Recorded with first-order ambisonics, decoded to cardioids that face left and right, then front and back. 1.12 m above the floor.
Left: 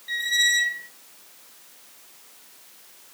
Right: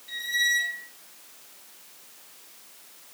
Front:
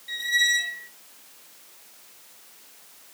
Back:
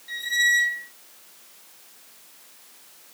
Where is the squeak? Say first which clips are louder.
Left 4 dB, back 1 dB; 65° left, 0.7 m.